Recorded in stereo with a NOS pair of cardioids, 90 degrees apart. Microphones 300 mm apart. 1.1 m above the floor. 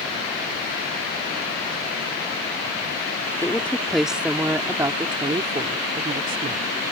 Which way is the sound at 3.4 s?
5° left.